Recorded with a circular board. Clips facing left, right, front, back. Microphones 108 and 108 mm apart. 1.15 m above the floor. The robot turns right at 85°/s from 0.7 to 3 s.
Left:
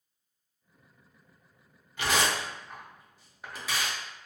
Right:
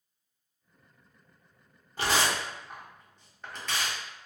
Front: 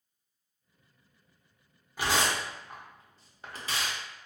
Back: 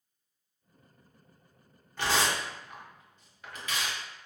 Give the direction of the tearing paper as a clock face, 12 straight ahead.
2 o'clock.